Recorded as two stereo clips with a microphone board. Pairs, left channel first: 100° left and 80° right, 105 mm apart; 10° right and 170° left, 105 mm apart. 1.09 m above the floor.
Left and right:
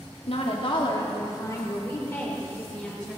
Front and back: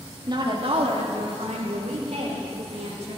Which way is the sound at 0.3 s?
120° left.